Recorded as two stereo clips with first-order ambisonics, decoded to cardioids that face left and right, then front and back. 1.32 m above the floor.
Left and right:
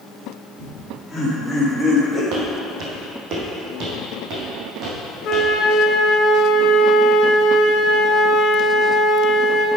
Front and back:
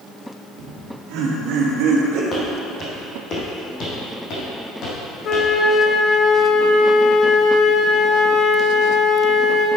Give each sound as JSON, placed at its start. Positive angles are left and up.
{"t": 0.6, "sound": "laughter", "azimuth_deg": 175, "distance_m": 1.9}
{"t": 2.3, "sound": "footsteps", "azimuth_deg": -65, "distance_m": 2.5}
{"t": 5.2, "sound": "a flute", "azimuth_deg": 40, "distance_m": 2.0}